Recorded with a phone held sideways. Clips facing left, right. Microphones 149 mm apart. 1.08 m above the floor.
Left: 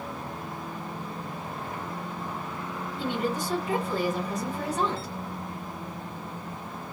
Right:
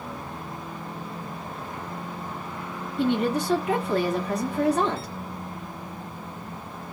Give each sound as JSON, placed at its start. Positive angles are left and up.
{"t": 3.0, "sound": "a woman speaking", "side_deg": -70, "distance_m": 1.2}